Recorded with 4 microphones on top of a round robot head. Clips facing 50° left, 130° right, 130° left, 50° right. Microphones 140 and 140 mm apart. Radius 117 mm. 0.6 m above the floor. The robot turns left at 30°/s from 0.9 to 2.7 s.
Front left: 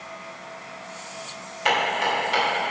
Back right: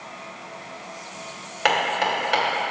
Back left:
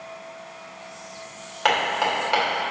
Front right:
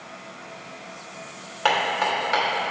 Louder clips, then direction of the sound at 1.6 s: Back right 1 dB, even; 135° right.